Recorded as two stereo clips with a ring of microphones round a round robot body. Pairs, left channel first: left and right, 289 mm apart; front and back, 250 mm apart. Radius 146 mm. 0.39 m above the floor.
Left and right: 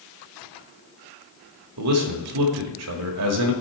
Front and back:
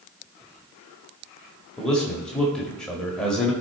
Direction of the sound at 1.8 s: 85° right.